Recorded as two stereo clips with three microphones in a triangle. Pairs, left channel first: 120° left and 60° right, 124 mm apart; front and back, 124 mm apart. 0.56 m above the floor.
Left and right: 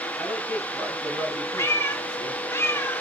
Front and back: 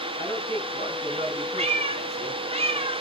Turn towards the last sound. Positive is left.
turn(degrees=-175)